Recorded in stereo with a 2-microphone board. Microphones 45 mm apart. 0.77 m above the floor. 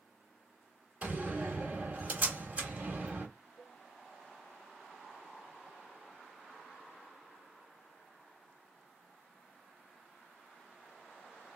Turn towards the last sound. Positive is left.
turn(degrees=60)  # may be behind; listen again after turning